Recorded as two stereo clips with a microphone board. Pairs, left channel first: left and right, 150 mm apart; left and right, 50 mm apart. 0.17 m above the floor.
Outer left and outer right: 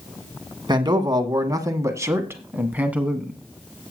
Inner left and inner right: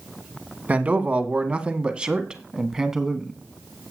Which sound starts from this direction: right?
A man speaking, at 0.7 s.